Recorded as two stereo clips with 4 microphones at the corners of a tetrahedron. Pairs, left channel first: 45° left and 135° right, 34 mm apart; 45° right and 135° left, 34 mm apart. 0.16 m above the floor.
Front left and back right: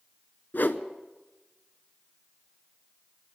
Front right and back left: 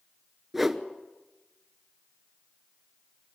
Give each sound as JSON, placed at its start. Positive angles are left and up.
{"t": 0.5, "sound": "a whoosh", "azimuth_deg": 55, "distance_m": 0.9}